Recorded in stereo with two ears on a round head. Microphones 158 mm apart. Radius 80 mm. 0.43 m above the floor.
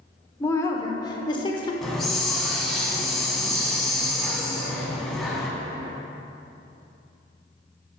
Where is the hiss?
Centre (ahead or behind), 1.4 m.